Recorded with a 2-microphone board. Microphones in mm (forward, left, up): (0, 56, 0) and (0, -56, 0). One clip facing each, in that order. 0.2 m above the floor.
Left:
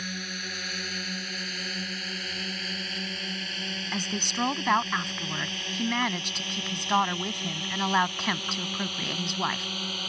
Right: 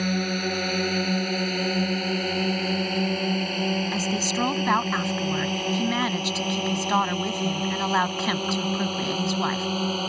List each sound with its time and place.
0.0 s a drone: 60° right (ahead or behind); by 10.1 s 45° right (ahead or behind)
3.9 s a woman speaking: 5° right (ahead or behind)